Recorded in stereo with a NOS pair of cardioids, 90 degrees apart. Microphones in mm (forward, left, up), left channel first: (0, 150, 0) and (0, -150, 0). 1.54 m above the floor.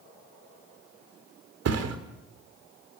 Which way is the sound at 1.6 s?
65° right.